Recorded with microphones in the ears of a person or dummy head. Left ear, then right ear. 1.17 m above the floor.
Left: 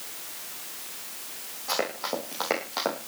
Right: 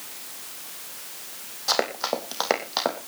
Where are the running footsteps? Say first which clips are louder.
Right 5 dB; 40° right (ahead or behind), 3 m; by 3.0 s 20° right (ahead or behind), 3 m.